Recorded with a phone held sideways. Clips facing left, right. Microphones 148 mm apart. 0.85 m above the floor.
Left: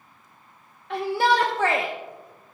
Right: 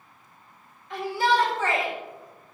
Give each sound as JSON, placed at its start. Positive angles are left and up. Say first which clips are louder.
{"t": 0.9, "sound": "a shout", "louder": "left 2 dB", "side_deg": 65, "distance_m": 1.3}